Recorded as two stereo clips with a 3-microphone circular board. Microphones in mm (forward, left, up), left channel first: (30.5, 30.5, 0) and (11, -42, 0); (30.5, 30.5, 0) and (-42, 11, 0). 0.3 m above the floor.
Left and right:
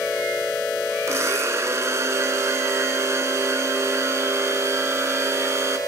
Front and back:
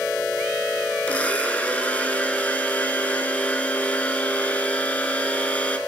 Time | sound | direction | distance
1.1 | a blender | 55° right | 0.5 m